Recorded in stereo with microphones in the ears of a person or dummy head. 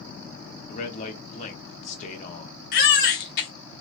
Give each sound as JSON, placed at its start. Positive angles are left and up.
{"t": 0.7, "sound": "a man speaking", "side_deg": 45, "distance_m": 0.9}
{"t": 2.7, "sound": "a baby crying", "side_deg": 55, "distance_m": 1.0}